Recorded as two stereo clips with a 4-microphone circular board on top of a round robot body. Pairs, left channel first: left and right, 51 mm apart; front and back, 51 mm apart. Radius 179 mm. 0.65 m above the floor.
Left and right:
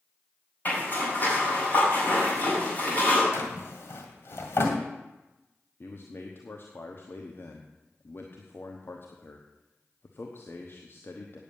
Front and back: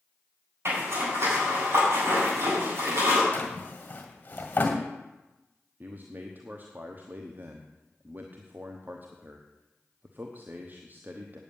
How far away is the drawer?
About 1.8 m.